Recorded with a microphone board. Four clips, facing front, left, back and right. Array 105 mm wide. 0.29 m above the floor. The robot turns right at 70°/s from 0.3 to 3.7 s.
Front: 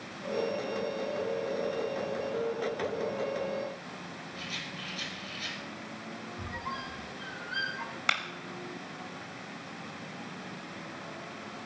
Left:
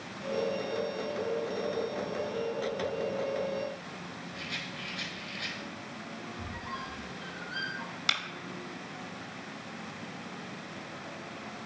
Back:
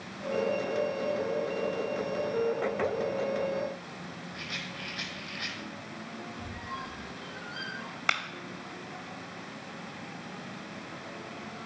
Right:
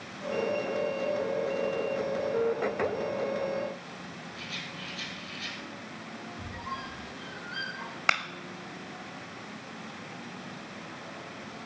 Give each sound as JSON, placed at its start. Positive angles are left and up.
{"t": 4.3, "sound": "a rattle", "azimuth_deg": 170, "distance_m": 2.5}
{"t": 6.4, "sound": "a squeak", "azimuth_deg": -10, "distance_m": 2.5}
{"t": 8.1, "sound": "a clap", "azimuth_deg": -100, "distance_m": 1.5}